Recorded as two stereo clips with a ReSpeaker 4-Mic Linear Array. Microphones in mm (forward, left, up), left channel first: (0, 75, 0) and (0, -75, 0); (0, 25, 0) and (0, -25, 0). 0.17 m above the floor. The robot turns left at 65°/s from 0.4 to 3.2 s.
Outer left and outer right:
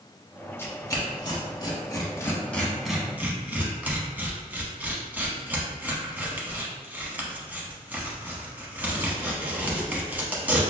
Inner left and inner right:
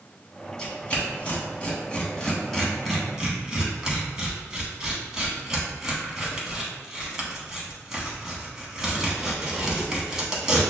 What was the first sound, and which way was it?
Tearing paper, 15° left (ahead or behind).